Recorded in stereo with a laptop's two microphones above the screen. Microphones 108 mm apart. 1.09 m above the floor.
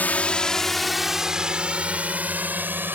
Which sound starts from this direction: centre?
A drone, at 0.0 s.